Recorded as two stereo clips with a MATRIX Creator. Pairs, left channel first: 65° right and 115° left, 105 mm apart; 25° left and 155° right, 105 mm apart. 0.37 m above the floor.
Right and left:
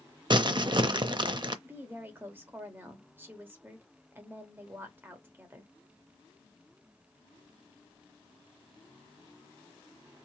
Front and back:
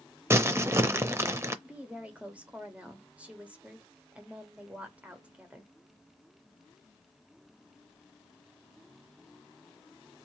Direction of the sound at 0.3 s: 145° left.